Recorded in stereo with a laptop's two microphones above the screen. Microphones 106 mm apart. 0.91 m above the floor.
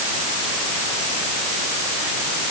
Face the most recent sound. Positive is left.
No sound to turn to.